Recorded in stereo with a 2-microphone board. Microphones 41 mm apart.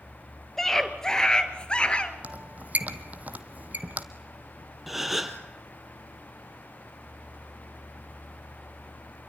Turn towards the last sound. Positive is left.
turn(degrees=0)  # may be behind; listen again after turning